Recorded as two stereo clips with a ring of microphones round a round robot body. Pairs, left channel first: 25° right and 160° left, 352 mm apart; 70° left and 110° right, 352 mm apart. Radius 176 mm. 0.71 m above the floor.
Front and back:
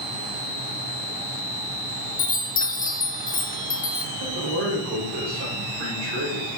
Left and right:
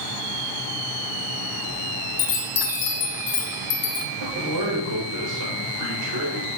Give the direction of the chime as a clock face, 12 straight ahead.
11 o'clock.